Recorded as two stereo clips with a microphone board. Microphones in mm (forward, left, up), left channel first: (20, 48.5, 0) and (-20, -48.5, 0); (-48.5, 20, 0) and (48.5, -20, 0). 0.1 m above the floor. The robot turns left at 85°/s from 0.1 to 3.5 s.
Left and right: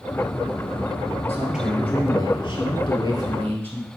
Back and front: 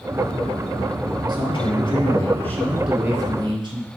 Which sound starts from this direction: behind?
A man speaking, at 1.3 s.